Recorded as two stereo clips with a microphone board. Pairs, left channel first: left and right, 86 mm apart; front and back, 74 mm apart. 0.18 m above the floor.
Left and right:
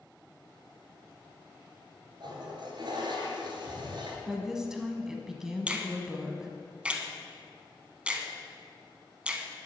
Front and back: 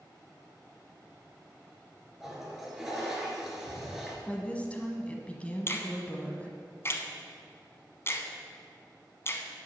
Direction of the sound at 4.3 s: 20° right.